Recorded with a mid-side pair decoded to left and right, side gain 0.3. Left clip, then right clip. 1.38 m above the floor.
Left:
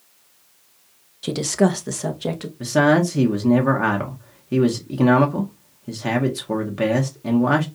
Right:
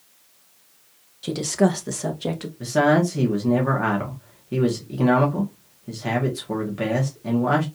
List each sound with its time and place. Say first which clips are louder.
1.2 s a woman speaking: left 2 dB; 40° left, 1.0 m; by 2.5 s 15° left, 1.7 m
2.6 s a man speaking: left 2 dB; 40° left, 1.4 m